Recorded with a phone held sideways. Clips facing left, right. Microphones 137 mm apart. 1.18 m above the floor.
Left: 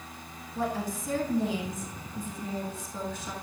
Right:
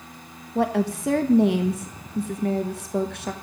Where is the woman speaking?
65° right (ahead or behind), 1.0 m.